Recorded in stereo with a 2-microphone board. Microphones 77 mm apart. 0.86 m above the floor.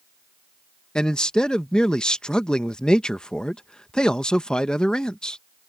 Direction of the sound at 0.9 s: 10° left (ahead or behind).